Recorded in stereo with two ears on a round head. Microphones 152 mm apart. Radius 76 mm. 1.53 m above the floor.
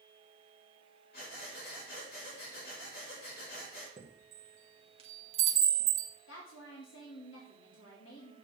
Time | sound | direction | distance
1.1 | breathing | 60° left (ahead or behind) | 4 m
4.0 | a chime | 35° right (ahead or behind) | 1.8 m
6.3 | a woman speaking | 85° left | 2 m